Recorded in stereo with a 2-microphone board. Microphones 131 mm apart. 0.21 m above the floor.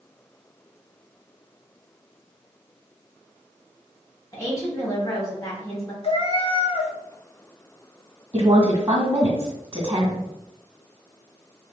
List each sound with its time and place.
4.3 s a woman speaking: 25° left (ahead or behind), 1.6 m
6.0 s a cat meowing: 50° left (ahead or behind), 0.7 m
8.3 s a woman speaking: 25° right (ahead or behind), 1.8 m